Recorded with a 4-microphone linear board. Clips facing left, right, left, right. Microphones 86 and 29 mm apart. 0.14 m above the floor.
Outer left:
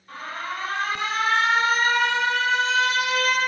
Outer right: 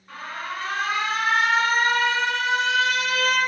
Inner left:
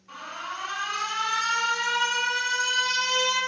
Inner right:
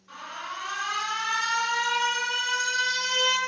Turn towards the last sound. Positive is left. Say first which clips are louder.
# outer left 1 dB, inner left 1 dB
turn(degrees=-20)  # may be behind; listen again after turning